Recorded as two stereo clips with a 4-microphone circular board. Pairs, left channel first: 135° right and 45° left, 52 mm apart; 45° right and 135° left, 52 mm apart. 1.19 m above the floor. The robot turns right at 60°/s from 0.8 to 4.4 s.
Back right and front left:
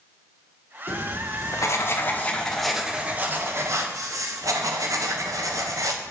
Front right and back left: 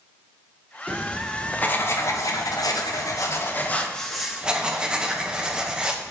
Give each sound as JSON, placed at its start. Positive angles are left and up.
{"t": 0.9, "sound": "writing", "azimuth_deg": -155, "distance_m": 0.6}